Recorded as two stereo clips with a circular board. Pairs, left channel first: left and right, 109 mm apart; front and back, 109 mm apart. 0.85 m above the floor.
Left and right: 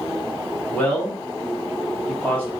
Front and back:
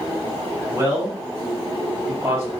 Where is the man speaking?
145° left, 0.9 m.